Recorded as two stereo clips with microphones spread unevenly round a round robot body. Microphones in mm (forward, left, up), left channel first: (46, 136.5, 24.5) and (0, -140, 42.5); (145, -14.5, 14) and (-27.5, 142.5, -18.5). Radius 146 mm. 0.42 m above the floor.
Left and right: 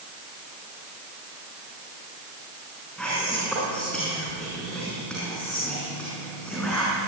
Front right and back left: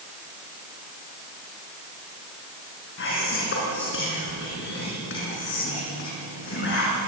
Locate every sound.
3.0 s whispering: 5° right, 5.5 m